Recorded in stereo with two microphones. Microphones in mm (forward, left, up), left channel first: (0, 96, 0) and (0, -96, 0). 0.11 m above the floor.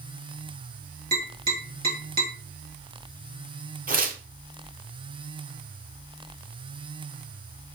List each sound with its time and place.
1.1 s tapping: 50° right (ahead or behind), 3.5 m
3.9 s tearing paper: 45° right (ahead or behind), 0.9 m